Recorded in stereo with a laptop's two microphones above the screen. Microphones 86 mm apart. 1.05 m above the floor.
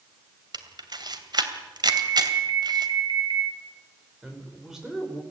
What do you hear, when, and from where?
0.5 s a camera shutter: 55° right (ahead or behind), 2.5 m
1.9 s an alarm: 60° right (ahead or behind), 3 m
4.2 s a man speaking: 5° right (ahead or behind), 4 m